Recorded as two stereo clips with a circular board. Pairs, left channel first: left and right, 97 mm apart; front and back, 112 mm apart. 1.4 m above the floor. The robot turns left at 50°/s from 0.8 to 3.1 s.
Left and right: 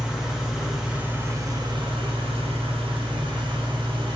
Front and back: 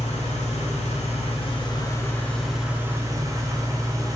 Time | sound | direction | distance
0.0 | an engine running | 5° right | 0.7 m